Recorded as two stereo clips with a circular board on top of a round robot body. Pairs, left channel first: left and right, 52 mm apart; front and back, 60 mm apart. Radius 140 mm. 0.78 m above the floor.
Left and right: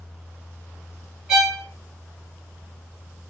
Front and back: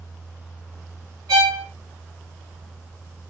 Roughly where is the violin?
Behind.